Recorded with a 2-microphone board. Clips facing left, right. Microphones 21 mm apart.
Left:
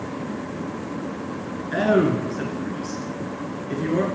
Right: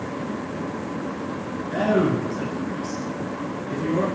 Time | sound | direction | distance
1.7 | a man speaking | 25° left (ahead or behind) | 1.4 m